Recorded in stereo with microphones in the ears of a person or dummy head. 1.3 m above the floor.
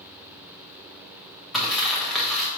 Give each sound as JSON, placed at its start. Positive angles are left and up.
{"t": 1.5, "sound": "crumpling", "side_deg": -5, "distance_m": 1.0}